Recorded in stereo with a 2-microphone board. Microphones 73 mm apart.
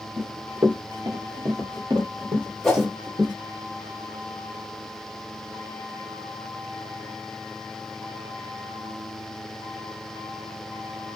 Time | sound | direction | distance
0.2 | running footsteps | 45° right (ahead or behind) | 1.2 m
2.6 | a whoosh | 5° left (ahead or behind) | 1.5 m